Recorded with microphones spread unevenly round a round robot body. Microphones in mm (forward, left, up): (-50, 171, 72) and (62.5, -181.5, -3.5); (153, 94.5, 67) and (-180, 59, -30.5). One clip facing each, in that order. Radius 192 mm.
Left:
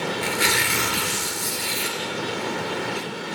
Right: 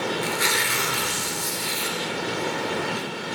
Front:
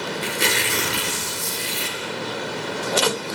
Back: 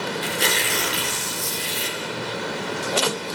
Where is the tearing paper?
85° left, 4.5 m.